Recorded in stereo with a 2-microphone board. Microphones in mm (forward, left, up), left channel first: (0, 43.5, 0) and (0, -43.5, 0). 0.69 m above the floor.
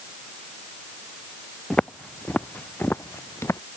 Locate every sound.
1.7 s footsteps: 10° left (ahead or behind); by 3.6 s 30° left (ahead or behind)